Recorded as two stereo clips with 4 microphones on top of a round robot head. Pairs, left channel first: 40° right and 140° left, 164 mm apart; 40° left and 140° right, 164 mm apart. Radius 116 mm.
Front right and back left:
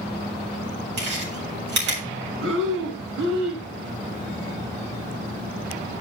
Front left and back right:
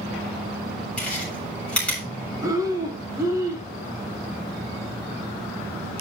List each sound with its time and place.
1.0 s chewing: 125° left, 7.5 m
2.4 s breathing: 150° left, 2 m